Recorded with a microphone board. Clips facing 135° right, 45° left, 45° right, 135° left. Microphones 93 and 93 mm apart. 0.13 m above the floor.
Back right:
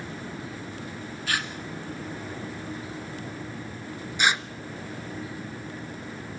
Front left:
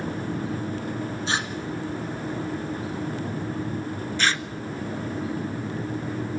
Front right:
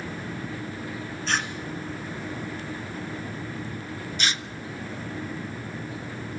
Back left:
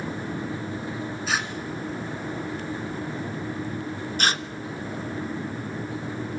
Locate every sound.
1.3 s tearing paper: 55° left, 1.5 m
4.2 s tearing paper: 155° left, 0.5 m